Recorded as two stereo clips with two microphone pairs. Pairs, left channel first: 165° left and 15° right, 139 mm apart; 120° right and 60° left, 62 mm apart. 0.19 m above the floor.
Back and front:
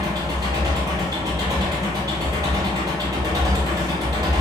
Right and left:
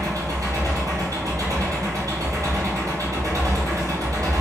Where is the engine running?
50° left, 1.1 m.